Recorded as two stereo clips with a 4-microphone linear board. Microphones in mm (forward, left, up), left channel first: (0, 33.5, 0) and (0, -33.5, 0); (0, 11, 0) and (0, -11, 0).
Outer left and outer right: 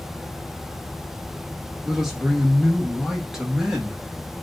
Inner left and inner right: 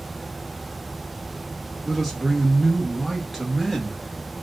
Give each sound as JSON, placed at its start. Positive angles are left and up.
{"t": 1.9, "sound": "a man speaking", "side_deg": -5, "distance_m": 1.0}